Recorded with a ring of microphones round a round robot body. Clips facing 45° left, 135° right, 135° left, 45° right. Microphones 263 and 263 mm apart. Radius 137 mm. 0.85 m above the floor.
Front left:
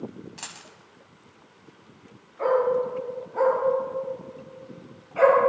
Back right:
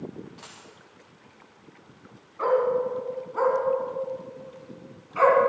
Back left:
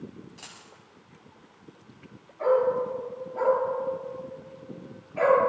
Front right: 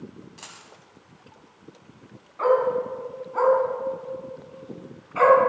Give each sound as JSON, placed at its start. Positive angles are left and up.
{"t": 0.4, "sound": "a dropped coin", "azimuth_deg": 40, "distance_m": 1.0}
{"t": 2.4, "sound": "a dog barking", "azimuth_deg": -60, "distance_m": 3.5}